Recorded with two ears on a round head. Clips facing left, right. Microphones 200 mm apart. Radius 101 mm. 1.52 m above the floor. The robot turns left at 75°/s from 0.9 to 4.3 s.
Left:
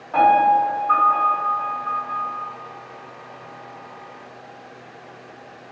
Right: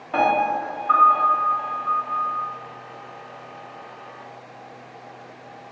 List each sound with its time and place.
0.1 s a piano: 35° right, 1.7 m; by 2.5 s 150° right, 1.7 m